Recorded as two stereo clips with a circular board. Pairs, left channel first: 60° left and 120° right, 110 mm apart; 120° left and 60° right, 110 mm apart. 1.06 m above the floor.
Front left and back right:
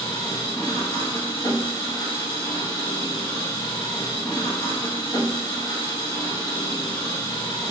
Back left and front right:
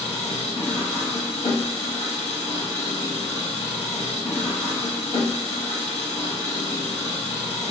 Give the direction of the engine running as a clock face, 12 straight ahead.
8 o'clock.